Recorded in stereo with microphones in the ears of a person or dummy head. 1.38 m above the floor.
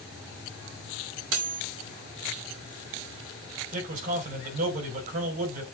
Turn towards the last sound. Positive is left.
turn(degrees=-50)  # may be behind; listen again after turning